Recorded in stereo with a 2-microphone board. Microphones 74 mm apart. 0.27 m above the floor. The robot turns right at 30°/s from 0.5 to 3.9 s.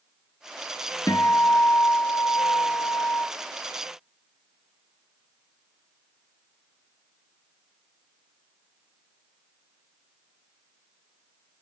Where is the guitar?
50° left, 1.5 m; by 3.3 s 115° left, 1.5 m.